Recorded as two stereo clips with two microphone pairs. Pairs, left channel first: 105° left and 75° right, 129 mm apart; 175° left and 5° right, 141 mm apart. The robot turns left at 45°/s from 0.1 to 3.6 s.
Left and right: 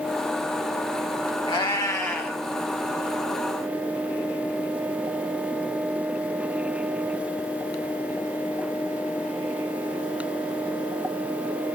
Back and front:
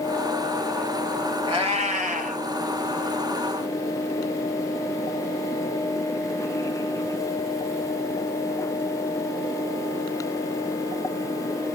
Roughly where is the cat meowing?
Ahead left.